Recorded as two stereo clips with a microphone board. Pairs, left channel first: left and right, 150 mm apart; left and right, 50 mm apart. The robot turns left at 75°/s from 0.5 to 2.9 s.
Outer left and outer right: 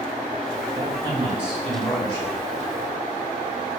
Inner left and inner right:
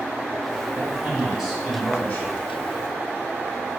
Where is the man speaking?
120° right, 1.5 m; by 2.4 s 120° left, 1.5 m.